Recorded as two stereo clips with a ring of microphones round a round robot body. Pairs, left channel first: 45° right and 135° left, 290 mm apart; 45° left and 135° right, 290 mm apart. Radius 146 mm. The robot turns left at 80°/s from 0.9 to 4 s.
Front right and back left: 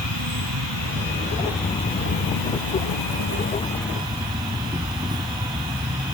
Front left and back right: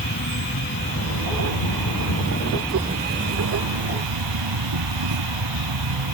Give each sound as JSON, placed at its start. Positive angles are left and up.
{"t": 0.0, "sound": "an insect", "azimuth_deg": 100}